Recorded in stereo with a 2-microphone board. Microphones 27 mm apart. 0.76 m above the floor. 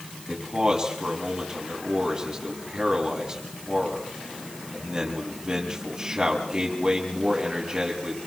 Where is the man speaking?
25° right (ahead or behind), 7 m.